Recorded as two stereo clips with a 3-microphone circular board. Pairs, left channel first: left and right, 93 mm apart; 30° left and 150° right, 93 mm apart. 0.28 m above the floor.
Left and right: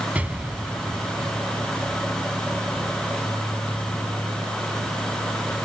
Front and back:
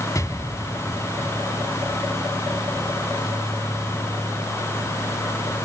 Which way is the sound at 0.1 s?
20° right.